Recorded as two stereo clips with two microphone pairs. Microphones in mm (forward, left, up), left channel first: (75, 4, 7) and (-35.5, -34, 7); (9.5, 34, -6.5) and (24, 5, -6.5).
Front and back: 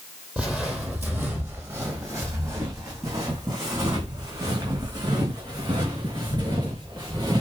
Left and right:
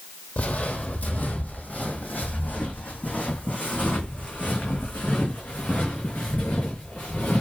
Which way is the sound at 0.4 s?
120° left.